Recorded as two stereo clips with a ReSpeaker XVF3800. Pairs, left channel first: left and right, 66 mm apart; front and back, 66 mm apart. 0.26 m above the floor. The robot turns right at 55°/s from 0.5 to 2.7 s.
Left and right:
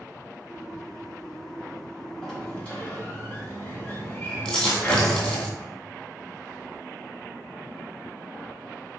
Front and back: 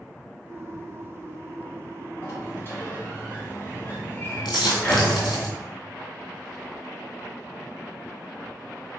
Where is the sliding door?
5° left, 1.4 m; by 5.5 s 30° left, 1.4 m.